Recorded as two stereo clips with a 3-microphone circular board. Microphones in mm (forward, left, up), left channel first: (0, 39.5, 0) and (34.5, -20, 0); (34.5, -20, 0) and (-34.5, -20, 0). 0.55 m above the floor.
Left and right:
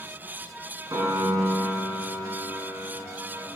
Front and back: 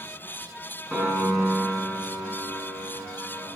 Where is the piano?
90° right, 1.9 m.